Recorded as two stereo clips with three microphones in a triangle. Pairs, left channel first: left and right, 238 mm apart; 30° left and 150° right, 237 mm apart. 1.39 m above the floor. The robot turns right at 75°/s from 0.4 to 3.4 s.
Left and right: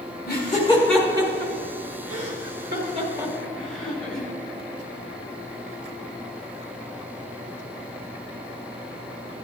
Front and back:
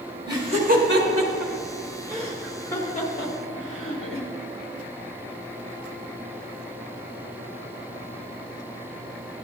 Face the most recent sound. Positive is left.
turn(degrees=5)